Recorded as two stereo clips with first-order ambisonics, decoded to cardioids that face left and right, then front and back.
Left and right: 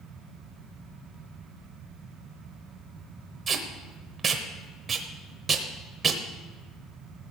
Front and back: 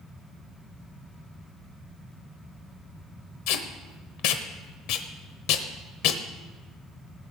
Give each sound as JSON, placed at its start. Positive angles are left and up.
{"t": 3.5, "sound": "tape being pulled", "azimuth_deg": -20, "distance_m": 1.0}